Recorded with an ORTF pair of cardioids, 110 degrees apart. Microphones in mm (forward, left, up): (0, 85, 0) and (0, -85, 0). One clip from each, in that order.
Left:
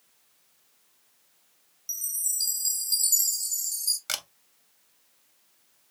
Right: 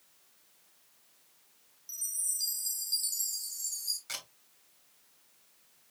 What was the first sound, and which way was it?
A chime, 40° left.